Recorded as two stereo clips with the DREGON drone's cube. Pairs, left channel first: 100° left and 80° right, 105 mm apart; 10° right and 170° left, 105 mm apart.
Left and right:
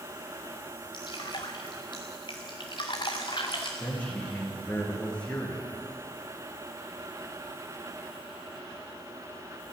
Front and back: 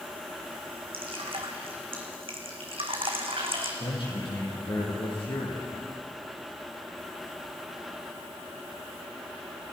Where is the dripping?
140° left, 2.5 m.